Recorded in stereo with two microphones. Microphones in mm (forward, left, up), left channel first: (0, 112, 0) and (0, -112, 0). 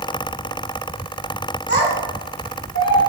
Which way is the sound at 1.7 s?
65° left (ahead or behind).